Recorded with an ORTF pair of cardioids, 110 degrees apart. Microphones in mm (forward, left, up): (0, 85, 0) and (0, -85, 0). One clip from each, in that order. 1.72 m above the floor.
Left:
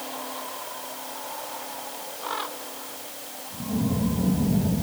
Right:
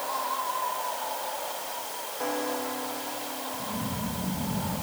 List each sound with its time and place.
Only background noise.